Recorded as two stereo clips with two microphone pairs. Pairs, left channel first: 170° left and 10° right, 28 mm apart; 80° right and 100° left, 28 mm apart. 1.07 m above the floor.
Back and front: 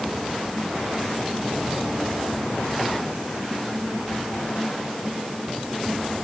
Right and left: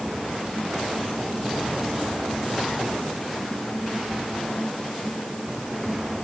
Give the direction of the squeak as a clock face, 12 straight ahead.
I don't hear a squeak.